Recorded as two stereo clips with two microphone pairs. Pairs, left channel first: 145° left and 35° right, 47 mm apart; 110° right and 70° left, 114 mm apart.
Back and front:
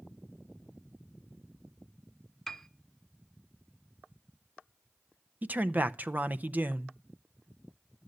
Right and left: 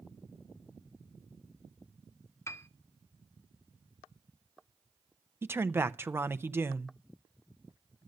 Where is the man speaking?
5° left, 0.6 m.